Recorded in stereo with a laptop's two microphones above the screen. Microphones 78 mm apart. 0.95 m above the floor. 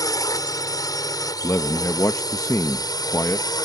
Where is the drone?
50° left (ahead or behind); by 3.7 s 60° left (ahead or behind).